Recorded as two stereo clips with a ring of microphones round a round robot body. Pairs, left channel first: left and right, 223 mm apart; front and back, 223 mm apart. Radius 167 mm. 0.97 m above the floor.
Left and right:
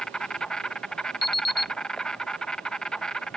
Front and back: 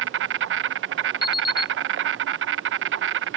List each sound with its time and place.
0.0 s an insect: 175° left
1.2 s an alarm clock: 45° left